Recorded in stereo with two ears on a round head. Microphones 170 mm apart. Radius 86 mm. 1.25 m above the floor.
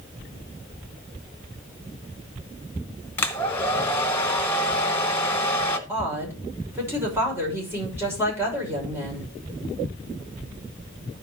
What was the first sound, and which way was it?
A hair dryer, 10° left (ahead or behind).